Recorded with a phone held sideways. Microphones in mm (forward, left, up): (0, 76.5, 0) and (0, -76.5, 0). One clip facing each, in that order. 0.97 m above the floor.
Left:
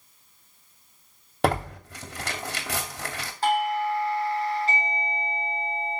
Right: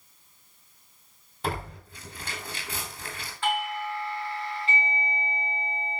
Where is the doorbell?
40° left (ahead or behind), 2.5 m.